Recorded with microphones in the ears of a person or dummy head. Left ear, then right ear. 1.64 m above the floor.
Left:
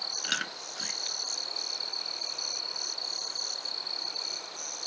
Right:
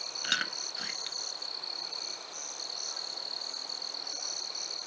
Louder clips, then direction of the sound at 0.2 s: Right 1 dB; 5° right (ahead or behind).